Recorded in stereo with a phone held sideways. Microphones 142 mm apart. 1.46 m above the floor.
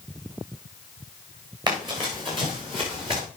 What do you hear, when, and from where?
1.7 s running footsteps: 30° right (ahead or behind), 5 m; by 3.2 s 40° right (ahead or behind), 6.5 m